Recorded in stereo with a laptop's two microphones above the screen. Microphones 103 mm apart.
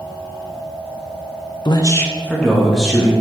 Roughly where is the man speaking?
Left.